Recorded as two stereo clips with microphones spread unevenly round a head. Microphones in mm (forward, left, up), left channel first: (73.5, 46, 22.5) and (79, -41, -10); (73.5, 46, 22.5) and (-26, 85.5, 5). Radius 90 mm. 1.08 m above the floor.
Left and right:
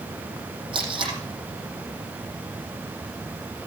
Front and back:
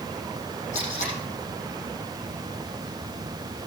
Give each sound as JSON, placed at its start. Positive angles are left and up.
{"t": 0.7, "sound": "tape being pulled", "azimuth_deg": -65, "distance_m": 10.0}